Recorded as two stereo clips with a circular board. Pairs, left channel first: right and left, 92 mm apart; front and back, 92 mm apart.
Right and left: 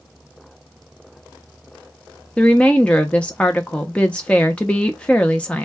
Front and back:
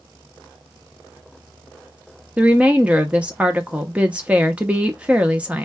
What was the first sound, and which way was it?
A woman speaking, 135° right.